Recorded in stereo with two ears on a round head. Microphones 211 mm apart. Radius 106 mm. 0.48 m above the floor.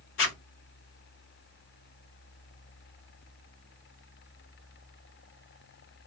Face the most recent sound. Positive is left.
turn(degrees=55)  # may be behind; listen again after turning